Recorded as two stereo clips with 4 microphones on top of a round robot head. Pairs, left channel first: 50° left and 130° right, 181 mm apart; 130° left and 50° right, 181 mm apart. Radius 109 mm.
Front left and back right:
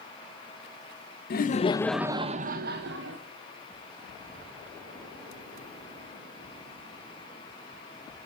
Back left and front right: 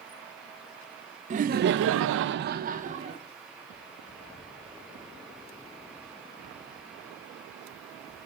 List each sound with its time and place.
1.3 s laughter: 5° left, 0.8 m; by 3.2 s 105° right, 1.4 m